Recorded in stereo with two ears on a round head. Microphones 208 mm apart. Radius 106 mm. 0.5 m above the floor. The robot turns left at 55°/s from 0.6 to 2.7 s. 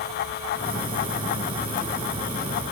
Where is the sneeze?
I don't hear a sneeze.